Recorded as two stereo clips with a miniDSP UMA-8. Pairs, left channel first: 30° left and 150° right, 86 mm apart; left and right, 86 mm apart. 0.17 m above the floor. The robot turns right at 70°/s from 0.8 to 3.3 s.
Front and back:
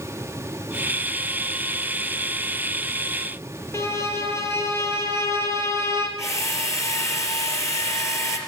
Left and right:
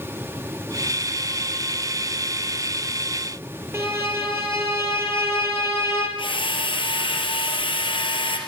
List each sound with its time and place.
3.7 s a violin: 30° right, 3 m
6.2 s a drill: 85° left, 3.5 m